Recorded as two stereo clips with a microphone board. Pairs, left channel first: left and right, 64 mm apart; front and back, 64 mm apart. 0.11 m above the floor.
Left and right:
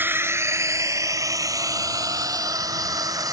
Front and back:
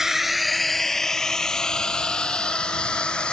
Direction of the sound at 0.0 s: 100° right.